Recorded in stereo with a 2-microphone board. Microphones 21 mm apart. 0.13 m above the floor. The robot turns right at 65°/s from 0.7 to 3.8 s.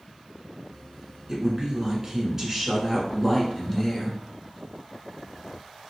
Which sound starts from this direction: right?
A woman speaking, at 1.3 s.